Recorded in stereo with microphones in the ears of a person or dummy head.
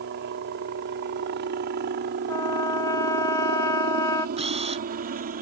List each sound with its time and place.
0.0 s a helicopter: 55° right (ahead or behind); by 5.4 s 40° right (ahead or behind)
2.3 s a trumpet: 20° left (ahead or behind)
4.4 s a camera shutter: 30° right (ahead or behind)